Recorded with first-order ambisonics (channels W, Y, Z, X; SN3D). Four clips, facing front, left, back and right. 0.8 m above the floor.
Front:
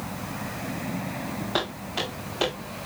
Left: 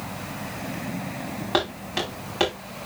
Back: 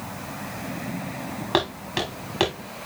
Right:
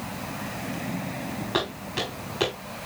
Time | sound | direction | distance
1.5 | footsteps | 155° left | 6 m